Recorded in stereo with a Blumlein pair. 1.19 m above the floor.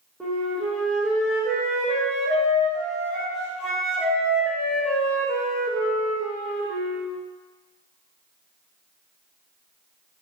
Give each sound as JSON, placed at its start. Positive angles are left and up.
{"t": 0.2, "sound": "a flute", "azimuth_deg": 0, "distance_m": 0.9}